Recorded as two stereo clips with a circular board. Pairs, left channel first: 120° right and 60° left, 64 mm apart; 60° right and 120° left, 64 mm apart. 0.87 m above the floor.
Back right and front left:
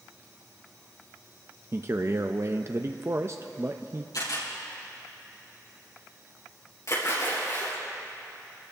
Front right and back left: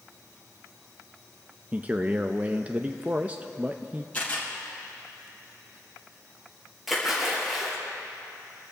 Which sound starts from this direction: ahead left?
A man speaking, at 1.7 s.